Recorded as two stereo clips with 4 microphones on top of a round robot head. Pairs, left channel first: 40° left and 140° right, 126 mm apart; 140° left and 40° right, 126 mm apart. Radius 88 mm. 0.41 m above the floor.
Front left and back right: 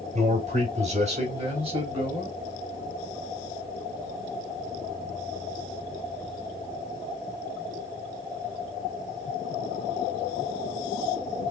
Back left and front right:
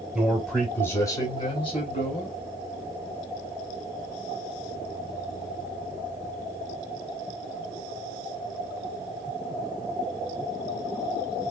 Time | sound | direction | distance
0.1 | a man speaking | 125° right | 2.5 m